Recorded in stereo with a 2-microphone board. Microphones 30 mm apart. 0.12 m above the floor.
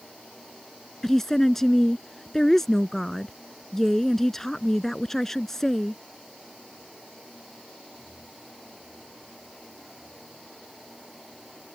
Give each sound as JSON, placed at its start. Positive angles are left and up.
{"t": 1.0, "sound": "a woman speaking", "side_deg": 10}